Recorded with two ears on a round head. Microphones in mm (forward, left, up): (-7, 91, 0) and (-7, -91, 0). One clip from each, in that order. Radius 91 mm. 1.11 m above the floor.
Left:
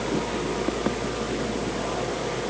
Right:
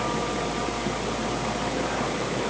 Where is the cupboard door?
No cupboard door in this recording.